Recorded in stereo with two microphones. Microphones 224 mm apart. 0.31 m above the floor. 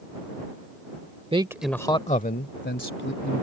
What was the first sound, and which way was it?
A man speaking, 25° right (ahead or behind).